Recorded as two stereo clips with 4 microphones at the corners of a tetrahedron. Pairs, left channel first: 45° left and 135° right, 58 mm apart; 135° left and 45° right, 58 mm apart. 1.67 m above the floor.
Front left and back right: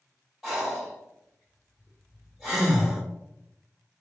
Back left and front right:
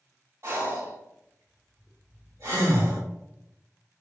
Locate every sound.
0.4 s breathing: 45° right, 1.7 m